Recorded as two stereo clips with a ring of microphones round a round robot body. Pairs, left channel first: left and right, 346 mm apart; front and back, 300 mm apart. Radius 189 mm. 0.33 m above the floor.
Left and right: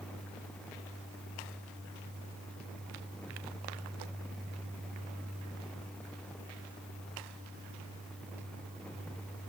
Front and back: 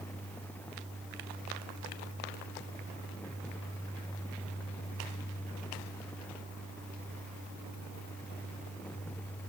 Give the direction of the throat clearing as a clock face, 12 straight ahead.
I don't hear throat clearing.